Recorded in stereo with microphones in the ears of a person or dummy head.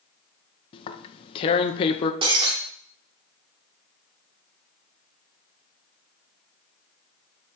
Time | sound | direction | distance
0.7 | tearing paper | 30° left (ahead or behind) | 0.6 m
2.2 | breaking glass | 25° right (ahead or behind) | 2 m